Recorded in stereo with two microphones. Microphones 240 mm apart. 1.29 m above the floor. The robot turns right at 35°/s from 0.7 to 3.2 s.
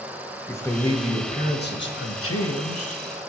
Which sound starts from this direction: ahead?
A man speaking, at 0.5 s.